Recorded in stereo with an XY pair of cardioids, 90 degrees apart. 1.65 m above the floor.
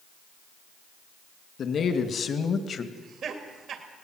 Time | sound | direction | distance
1.6 | a man speaking | 60° left | 2.5 m
2.9 | laughter | 70° right | 2.5 m